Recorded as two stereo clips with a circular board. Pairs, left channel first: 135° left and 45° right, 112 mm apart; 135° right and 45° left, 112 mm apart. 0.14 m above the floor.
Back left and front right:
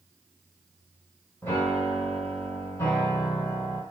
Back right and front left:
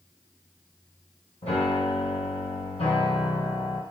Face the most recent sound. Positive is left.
turn(degrees=-155)